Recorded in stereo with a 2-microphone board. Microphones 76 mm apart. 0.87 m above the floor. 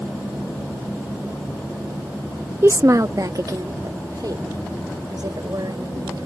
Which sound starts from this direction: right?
A woman speaking, at 2.6 s.